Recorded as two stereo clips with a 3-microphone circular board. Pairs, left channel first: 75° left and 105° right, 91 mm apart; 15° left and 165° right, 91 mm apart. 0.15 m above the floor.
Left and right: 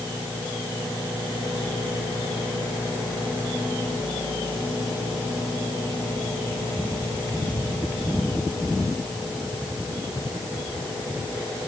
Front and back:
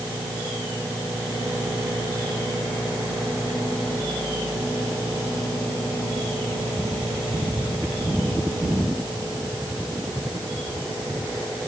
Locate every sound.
Only background noise.